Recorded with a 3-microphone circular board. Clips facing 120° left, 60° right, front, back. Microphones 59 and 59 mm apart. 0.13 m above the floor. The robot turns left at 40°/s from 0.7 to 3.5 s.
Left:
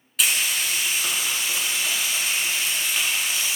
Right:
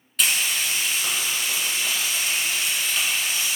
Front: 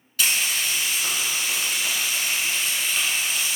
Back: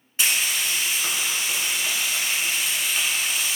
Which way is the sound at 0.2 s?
155° right.